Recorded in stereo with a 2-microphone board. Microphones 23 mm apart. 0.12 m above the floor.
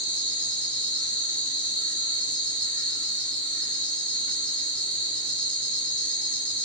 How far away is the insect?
About 1.1 m.